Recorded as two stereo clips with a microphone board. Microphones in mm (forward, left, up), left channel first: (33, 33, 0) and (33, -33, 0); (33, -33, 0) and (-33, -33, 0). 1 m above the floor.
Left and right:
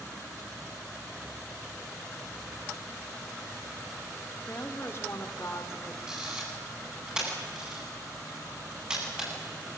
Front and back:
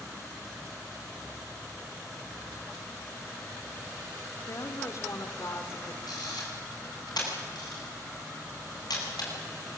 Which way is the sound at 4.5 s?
35° left.